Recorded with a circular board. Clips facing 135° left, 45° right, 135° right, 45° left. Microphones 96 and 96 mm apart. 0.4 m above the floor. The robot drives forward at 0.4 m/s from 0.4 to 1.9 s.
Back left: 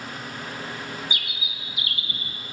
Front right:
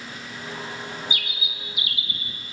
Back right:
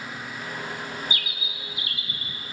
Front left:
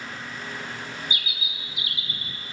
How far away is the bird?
About 1.0 m.